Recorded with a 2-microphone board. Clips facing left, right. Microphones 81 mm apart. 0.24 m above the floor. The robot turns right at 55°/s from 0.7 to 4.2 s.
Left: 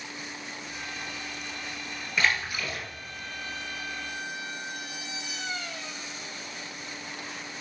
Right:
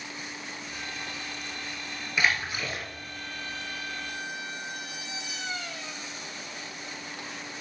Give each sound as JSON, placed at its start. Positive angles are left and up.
{"t": 2.2, "sound": "a splash", "azimuth_deg": -175, "distance_m": 2.0}